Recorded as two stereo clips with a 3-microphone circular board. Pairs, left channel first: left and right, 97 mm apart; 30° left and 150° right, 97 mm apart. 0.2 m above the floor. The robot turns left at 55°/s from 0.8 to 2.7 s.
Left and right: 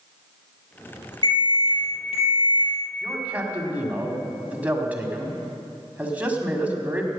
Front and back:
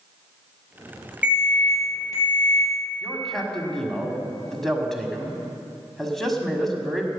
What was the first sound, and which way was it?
An alarm, 135° left.